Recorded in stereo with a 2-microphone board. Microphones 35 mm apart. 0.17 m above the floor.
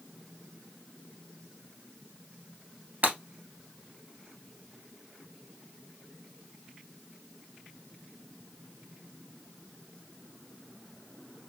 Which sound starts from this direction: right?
Breaking glass, at 3.0 s.